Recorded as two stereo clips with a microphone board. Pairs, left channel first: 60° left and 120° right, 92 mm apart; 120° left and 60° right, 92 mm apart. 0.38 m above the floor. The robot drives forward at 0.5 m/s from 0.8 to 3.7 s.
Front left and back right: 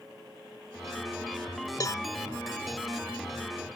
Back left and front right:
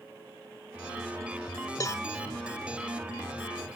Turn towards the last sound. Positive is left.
turn(degrees=120)